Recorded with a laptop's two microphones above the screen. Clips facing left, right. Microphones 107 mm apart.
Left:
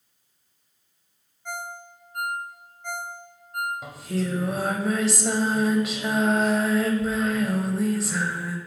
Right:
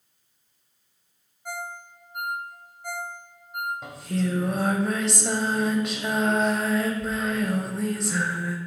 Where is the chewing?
I don't hear chewing.